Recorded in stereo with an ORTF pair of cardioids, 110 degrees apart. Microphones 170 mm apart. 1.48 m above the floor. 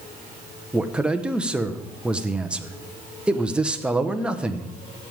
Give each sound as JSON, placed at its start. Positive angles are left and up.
{"t": 0.7, "sound": "a man speaking", "azimuth_deg": -5, "distance_m": 1.2}